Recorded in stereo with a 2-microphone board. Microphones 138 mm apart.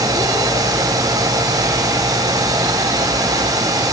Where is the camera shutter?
I don't hear a camera shutter.